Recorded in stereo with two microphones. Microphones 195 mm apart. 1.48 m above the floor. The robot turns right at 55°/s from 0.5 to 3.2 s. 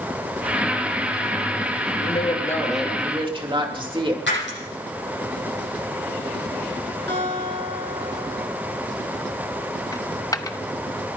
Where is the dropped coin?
20° left (ahead or behind), 0.7 m.